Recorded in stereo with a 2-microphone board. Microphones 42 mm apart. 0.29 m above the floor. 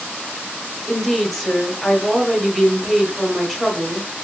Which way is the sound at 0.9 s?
5° left (ahead or behind).